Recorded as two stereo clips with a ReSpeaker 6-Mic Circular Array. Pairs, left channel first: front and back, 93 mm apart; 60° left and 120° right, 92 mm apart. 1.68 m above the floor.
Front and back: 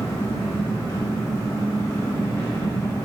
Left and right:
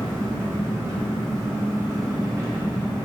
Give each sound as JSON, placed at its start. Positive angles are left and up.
{"t": 0.0, "sound": "an engine running", "azimuth_deg": -60, "distance_m": 0.9}